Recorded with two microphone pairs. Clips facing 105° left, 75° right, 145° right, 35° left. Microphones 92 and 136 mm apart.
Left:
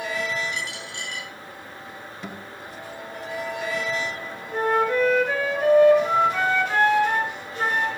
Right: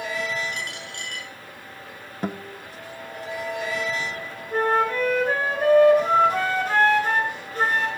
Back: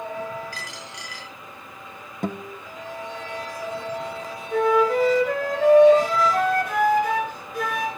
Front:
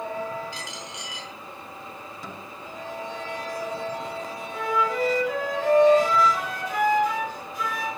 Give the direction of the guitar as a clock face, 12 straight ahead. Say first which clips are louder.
Right 9 dB, back 15 dB; 4 o'clock.